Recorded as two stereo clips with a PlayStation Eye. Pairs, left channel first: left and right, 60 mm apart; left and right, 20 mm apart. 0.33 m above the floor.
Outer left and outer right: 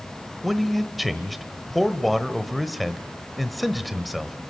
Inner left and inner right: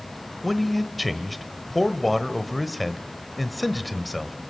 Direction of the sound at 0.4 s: Centre (ahead or behind).